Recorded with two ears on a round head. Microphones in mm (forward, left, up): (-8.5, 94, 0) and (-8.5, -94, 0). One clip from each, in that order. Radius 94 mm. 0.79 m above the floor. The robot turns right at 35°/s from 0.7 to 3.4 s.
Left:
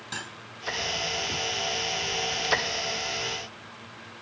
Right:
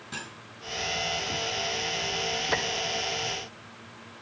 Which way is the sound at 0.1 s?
65° left (ahead or behind).